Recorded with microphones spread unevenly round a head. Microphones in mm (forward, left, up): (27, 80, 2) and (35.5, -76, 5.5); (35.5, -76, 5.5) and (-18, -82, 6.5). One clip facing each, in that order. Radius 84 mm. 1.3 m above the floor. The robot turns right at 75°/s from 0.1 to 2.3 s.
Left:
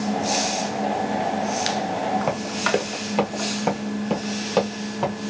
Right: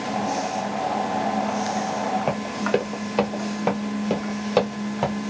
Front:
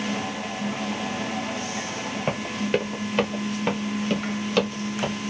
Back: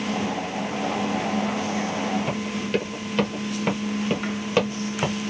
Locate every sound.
2.3 s running footsteps: 10° left, 1.5 m; by 5.2 s 155° right, 1.6 m